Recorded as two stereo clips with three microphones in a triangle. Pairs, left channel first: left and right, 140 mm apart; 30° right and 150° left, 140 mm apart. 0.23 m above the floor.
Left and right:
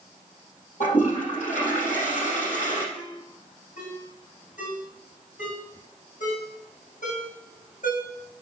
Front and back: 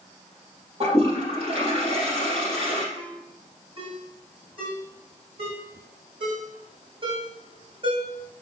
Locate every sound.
0.8 s a toilet flushing: 105° left, 5 m
3.0 s a ringtone: 100° left, 6.5 m